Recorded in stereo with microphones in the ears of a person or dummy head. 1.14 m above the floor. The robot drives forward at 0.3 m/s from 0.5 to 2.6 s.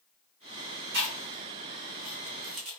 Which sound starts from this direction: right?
Chewing, at 0.9 s.